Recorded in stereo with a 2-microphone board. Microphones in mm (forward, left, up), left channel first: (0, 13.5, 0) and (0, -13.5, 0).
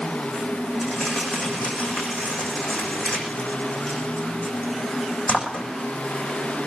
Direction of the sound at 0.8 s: 55° left (ahead or behind).